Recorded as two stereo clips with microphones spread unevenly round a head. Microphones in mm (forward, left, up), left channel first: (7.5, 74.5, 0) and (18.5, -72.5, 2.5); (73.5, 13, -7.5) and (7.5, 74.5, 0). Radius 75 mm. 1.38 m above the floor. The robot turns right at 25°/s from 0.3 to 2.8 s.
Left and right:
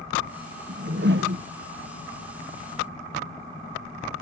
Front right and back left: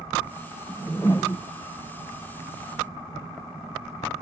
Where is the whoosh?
125° right; by 1.4 s 105° right.